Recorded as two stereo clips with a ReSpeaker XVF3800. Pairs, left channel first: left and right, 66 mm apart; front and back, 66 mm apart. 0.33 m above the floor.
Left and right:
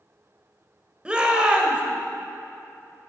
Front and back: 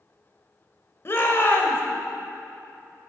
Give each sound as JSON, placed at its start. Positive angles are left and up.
{"t": 1.1, "sound": "a shout", "azimuth_deg": -20, "distance_m": 1.0}